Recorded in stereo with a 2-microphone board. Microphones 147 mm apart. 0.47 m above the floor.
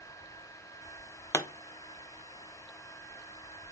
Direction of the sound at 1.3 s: 20° left (ahead or behind).